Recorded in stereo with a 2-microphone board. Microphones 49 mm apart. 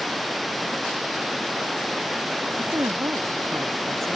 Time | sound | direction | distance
0.0 | running water | centre (ahead or behind) | ?
2.6 | a woman speaking | 75° right (ahead or behind) | ?